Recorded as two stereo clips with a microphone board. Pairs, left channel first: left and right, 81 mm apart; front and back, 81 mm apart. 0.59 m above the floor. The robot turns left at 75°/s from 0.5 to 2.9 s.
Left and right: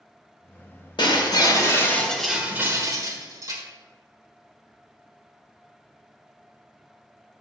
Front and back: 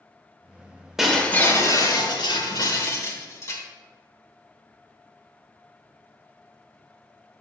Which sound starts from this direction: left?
Breaking glass, at 1.0 s.